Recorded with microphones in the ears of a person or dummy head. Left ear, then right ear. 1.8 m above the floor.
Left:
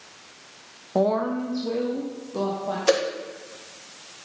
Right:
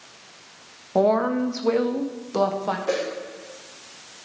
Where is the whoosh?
75° left (ahead or behind), 1.5 m.